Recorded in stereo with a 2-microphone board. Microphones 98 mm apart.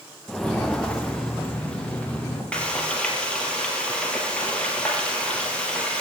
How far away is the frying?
About 2.5 m.